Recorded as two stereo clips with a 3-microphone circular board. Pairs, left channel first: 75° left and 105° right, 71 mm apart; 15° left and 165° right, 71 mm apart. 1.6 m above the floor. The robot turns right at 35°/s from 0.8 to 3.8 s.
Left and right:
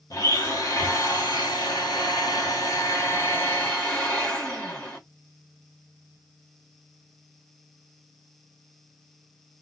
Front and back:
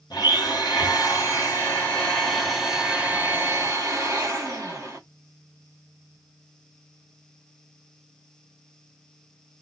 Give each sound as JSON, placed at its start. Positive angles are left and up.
{"t": 0.1, "sound": "a blender", "azimuth_deg": 40, "distance_m": 1.5}